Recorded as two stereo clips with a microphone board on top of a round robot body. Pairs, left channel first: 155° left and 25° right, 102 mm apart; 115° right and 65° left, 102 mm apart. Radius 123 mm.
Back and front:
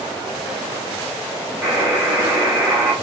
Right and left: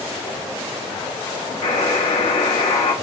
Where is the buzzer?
100° right, 1.1 m.